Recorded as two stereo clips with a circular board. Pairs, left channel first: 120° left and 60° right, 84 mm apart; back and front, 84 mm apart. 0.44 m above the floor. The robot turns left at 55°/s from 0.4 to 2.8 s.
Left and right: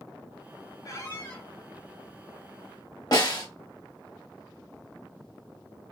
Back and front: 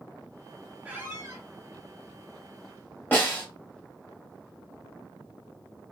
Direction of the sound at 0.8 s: 75° left.